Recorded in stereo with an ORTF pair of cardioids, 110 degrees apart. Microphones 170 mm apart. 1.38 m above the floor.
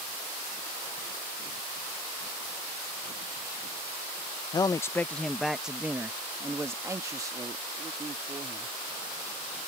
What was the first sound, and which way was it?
A man speaking, 25° left.